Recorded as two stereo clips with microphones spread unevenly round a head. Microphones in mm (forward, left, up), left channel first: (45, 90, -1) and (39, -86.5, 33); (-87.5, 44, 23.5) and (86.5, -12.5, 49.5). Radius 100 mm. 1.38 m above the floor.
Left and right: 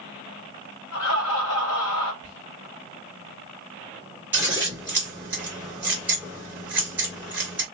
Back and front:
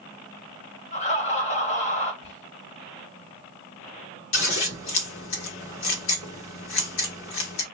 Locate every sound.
0.9 s laughter: 110° left, 2 m
2.2 s whispering: 115° left, 2 m
4.3 s scissors: 165° right, 1.6 m